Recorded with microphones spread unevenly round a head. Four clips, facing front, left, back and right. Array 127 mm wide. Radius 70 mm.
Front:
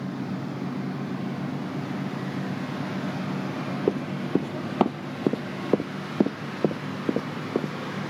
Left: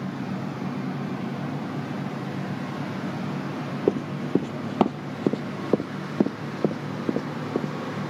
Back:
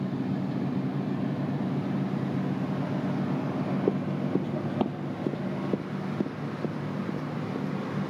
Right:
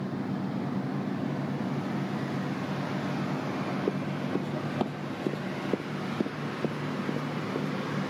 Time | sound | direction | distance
3.9 | running footsteps | 35° left | ?